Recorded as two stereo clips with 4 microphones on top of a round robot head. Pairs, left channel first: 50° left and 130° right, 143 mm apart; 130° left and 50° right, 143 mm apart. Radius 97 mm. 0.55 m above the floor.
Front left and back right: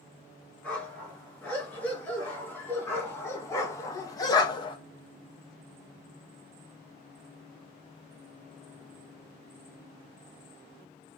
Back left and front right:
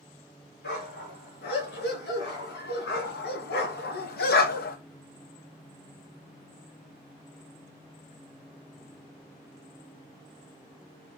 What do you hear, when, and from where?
0.6 s a dog barking: 130° left, 4 m; by 4.8 s 110° left, 1.1 m